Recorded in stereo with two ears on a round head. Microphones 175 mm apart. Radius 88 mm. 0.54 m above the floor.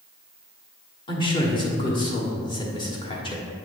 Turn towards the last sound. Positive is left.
turn(degrees=25)  # may be behind; listen again after turning